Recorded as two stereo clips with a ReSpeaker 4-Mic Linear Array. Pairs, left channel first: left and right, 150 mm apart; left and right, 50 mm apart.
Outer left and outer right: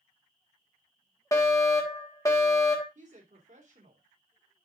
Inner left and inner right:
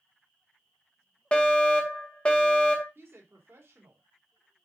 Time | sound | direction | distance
1.3 | a fire alarm | 20° left (ahead or behind) | 1.9 m
3.0 | a woman speaking | 55° right (ahead or behind) | 3 m